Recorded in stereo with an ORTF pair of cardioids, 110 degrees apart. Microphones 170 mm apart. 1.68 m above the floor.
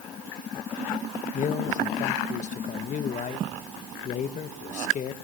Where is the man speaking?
50° left, 1.8 m.